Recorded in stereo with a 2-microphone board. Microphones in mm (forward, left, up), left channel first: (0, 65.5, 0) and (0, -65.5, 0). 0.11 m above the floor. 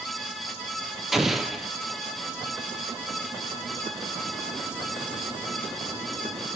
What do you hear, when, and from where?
1.1 s an explosion: centre (ahead or behind), 1.7 m